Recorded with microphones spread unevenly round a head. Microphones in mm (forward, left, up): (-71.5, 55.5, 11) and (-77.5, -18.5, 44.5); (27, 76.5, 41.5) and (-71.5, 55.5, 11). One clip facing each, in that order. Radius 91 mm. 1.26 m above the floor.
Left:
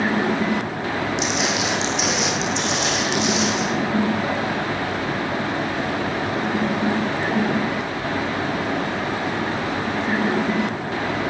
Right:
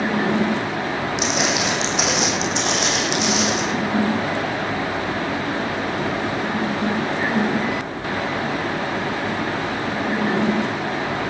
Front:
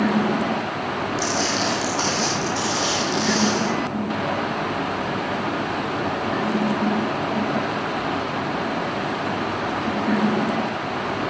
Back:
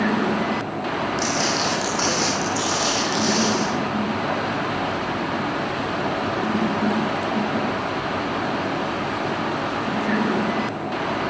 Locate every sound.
1.2 s footsteps: 65° right, 3 m; by 3.6 s 85° right, 3.5 m